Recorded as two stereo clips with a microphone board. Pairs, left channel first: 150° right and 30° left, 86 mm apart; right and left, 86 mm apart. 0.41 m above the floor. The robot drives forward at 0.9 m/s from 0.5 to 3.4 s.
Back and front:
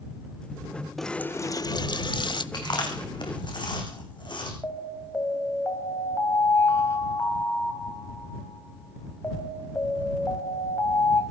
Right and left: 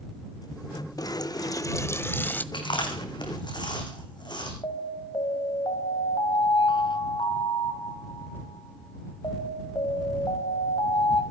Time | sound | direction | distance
1.0 | a running tap | 60° right | 0.6 m
2.5 | chewing | 115° right | 4.5 m
4.6 | an alarm | 95° right | 3 m